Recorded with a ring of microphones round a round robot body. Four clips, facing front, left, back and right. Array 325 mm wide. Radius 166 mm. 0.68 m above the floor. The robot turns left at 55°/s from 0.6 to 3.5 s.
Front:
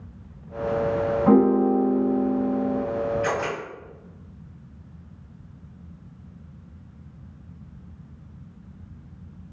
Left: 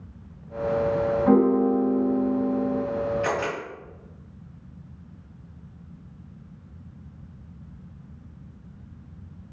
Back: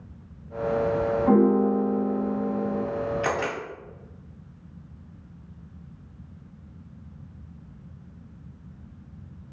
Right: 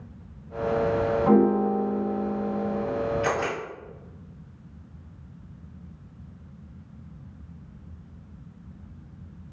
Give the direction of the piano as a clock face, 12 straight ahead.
1 o'clock.